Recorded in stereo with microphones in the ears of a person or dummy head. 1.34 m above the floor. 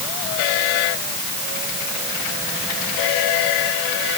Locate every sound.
Only background noise.